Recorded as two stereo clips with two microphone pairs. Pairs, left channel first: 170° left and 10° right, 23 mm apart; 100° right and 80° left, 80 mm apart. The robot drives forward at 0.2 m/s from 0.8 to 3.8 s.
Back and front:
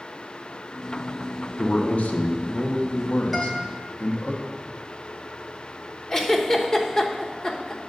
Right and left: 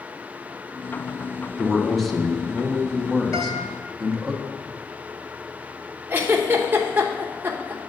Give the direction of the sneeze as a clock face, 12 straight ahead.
No sneeze in this recording.